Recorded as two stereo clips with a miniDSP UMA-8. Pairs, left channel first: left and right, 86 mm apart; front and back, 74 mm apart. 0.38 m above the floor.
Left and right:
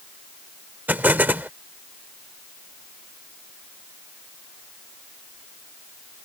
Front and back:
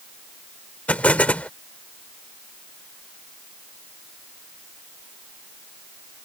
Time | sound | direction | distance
0.9 | an explosion | 45° right | ?